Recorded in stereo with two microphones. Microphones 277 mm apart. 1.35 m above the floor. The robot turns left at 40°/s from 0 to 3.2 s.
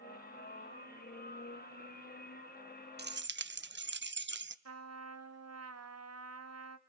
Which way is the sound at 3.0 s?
35° right (ahead or behind).